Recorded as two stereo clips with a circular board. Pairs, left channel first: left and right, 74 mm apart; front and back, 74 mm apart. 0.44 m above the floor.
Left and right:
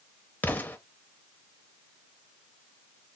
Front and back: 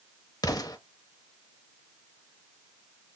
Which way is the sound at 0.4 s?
25° left.